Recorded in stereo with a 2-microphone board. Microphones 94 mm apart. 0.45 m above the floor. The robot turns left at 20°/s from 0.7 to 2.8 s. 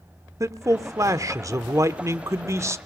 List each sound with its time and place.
0.4 s a man speaking: 75° right, 0.8 m; by 2.8 s 120° right, 0.8 m